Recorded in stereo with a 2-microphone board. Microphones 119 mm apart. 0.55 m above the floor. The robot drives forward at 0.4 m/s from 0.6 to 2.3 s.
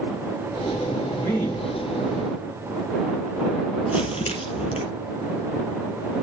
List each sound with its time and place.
1.1 s a man speaking: 25° left (ahead or behind), 6 m
3.9 s crumpling: 65° left (ahead or behind), 3.5 m